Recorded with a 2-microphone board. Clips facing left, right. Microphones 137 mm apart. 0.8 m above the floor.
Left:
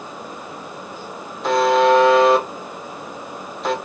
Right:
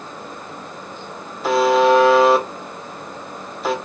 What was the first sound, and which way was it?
A buzzer, 5° right (ahead or behind).